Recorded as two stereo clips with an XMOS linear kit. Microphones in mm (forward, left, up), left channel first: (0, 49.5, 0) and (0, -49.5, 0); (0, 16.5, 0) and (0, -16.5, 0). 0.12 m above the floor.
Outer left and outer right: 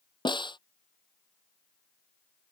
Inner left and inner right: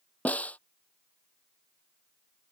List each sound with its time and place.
0.2 s a snare drum: 45° left (ahead or behind)